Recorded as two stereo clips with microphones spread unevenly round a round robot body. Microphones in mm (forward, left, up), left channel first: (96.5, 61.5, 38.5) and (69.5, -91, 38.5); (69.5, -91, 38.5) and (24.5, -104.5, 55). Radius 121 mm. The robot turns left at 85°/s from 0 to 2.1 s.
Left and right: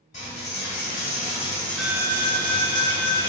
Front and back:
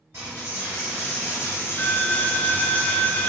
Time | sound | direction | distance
0.1 | a dropped coin | 130° left | 0.8 m